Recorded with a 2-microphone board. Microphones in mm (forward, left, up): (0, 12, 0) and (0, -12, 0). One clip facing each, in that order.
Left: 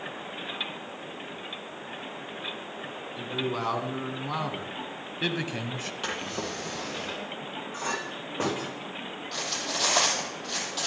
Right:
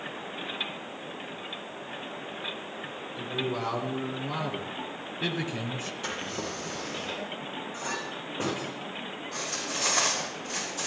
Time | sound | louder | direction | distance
3.2 | a man speaking | left 1 dB | 20° left (ahead or behind) | 3 m
6.0 | a drawer | left 3 dB | 35° left (ahead or behind) | 5.5 m
7.7 | a clink | left 4 dB | 25° left (ahead or behind) | 9.5 m
9.3 | cutlery clinking | left 3 dB | 70° left (ahead or behind) | 5.5 m